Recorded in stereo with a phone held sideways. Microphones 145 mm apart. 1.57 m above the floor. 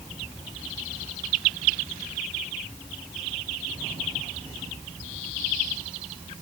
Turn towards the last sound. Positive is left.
No sound to turn to.